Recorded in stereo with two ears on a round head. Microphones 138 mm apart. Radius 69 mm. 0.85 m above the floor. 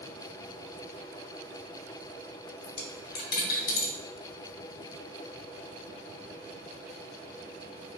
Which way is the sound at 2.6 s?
65° left (ahead or behind).